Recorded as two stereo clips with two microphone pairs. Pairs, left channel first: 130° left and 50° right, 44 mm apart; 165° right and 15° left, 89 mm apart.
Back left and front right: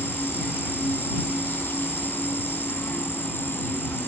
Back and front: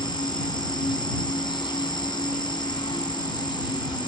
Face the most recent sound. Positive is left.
turn(degrees=165)